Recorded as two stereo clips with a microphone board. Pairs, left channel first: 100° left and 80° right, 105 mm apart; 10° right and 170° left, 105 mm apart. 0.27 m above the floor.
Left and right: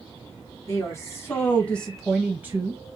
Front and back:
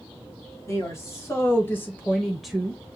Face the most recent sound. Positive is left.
turn(degrees=-120)